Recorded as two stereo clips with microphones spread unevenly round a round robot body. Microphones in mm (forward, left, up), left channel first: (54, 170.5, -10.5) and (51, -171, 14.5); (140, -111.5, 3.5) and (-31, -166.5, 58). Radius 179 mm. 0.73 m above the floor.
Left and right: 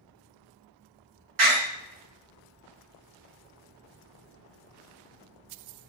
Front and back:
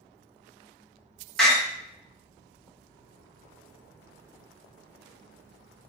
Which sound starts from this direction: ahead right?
A door slam, at 1.4 s.